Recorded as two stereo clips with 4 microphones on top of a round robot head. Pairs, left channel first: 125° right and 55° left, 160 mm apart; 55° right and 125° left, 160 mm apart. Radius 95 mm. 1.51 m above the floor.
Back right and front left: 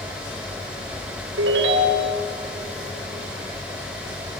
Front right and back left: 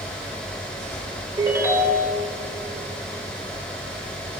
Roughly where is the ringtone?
Ahead left.